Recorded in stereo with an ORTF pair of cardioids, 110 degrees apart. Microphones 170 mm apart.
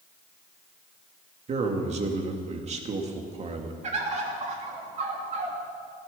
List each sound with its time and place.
1.5 s a man speaking: 40° right, 2.5 m
3.8 s a bird: 45° right, 3 m